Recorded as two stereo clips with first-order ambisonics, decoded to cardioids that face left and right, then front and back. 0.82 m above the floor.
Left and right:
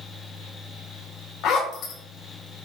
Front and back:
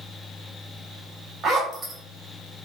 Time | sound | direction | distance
1.4 | a zipper | 115° left | 1.1 m